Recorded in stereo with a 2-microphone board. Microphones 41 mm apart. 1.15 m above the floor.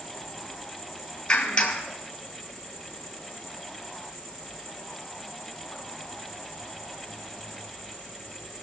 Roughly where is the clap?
Left.